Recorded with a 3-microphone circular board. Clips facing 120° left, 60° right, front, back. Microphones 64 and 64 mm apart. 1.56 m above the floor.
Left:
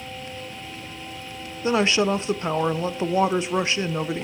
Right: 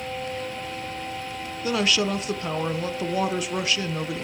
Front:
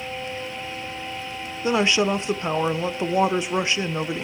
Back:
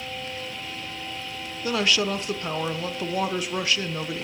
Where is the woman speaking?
65° left, 0.6 m.